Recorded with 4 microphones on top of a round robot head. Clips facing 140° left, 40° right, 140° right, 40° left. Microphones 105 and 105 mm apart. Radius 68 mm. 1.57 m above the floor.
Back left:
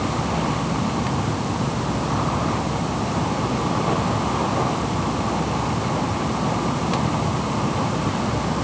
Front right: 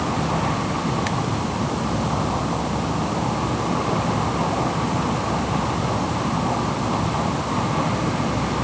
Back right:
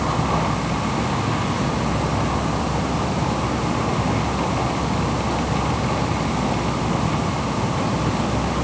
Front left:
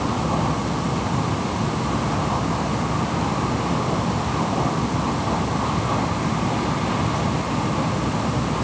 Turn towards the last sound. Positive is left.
No sound to turn to.